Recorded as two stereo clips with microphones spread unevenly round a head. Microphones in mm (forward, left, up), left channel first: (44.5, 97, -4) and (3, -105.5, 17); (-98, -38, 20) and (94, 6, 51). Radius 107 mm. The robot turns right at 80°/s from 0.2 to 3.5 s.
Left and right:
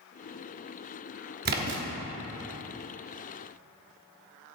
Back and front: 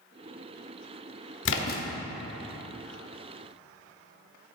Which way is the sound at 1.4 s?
140° right.